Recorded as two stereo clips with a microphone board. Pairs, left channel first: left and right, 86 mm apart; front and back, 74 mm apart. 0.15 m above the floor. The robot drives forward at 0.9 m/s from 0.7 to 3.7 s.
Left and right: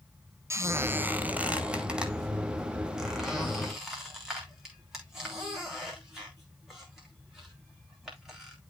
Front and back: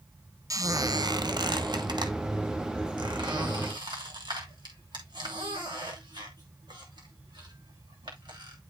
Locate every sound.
0.5 s a squeak: 145° right, 0.6 m; by 8.6 s 175° right, 3 m